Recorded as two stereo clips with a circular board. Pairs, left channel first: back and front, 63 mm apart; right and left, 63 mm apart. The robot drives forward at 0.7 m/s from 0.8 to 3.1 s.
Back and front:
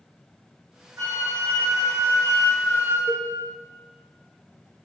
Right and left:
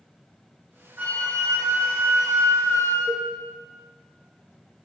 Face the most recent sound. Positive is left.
turn(degrees=130)